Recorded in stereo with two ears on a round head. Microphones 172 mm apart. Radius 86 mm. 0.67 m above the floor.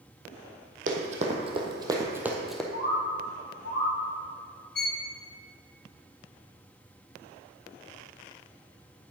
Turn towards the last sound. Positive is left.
turn(degrees=50)  # may be behind; listen again after turning